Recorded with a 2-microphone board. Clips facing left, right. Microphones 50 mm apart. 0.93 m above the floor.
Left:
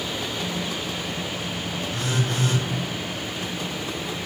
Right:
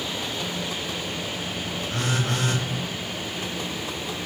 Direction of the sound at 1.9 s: 55° right (ahead or behind).